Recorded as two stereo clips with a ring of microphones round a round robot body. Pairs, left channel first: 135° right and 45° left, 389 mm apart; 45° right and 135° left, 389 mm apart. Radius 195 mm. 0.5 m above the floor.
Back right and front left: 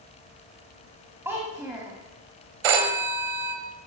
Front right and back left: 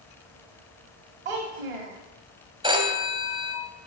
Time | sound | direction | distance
1.2 | a child speaking | 130° left | 1.6 m
2.6 | a phone ringing | 55° left | 1.7 m